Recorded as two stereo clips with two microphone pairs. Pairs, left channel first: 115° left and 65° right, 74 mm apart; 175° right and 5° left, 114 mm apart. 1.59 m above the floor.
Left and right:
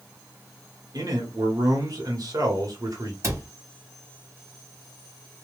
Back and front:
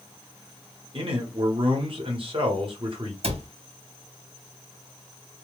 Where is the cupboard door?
20° right, 0.8 m.